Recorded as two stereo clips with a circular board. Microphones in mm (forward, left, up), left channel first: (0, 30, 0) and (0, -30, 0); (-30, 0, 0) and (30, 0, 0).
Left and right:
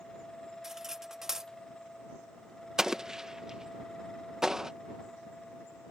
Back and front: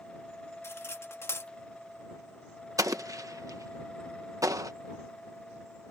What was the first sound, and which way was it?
Cutlery clinking, 170° right.